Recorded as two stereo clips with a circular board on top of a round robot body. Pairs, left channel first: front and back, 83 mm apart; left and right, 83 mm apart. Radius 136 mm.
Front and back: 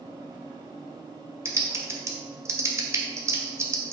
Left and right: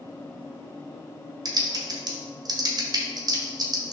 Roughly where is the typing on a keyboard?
Behind right.